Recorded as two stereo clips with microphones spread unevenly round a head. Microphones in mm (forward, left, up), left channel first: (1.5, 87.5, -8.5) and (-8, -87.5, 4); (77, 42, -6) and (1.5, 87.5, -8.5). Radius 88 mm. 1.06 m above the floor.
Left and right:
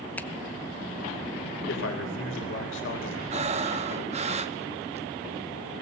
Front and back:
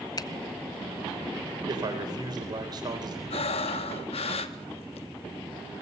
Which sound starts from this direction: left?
A man speaking, at 1.7 s.